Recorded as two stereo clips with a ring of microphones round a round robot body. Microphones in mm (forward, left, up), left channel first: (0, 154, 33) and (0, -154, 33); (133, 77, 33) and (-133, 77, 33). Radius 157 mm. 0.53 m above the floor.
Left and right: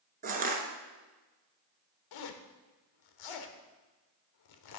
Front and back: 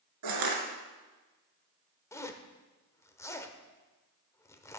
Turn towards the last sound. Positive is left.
turn(degrees=80)